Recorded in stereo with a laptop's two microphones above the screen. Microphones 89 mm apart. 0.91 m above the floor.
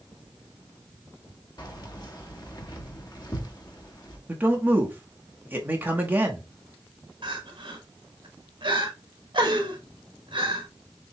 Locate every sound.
1.6 s keys jangling: 50° left (ahead or behind), 1.3 m
4.3 s a man speaking: 20° right (ahead or behind), 1.0 m
7.2 s crying: 60° right (ahead or behind), 1.0 m